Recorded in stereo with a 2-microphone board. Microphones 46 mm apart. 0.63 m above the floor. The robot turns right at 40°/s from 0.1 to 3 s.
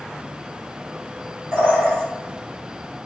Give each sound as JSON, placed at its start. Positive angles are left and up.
{"t": 1.5, "sound": "a bird", "side_deg": -45, "distance_m": 1.6}